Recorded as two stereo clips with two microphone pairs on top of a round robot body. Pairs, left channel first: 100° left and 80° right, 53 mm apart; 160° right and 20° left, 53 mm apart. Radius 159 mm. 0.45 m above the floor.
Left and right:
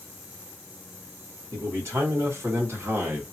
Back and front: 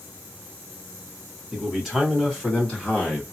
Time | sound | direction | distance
1.5 | a man speaking | 75° right | 2.0 m